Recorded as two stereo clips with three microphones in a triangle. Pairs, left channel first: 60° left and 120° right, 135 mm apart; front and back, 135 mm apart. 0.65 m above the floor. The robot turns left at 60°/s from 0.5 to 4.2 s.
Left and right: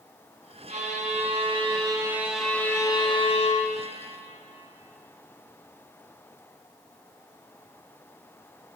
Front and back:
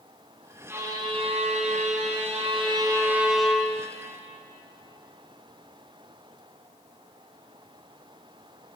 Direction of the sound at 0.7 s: 110° right.